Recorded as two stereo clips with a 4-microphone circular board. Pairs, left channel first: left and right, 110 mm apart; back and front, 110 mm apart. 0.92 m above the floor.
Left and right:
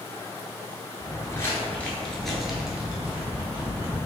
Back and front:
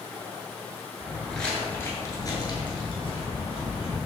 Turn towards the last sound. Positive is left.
turn(degrees=-160)